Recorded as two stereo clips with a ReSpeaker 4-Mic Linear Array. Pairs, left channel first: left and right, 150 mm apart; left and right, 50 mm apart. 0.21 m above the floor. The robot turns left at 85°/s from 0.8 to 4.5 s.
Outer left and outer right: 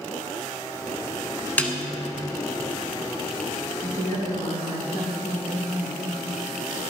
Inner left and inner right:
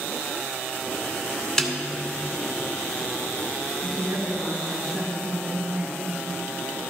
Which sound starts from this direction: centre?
A snare drum, at 1.6 s.